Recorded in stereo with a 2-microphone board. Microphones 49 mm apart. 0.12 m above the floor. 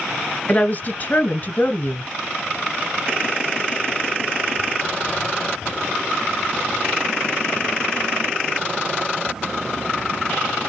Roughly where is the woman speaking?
Left.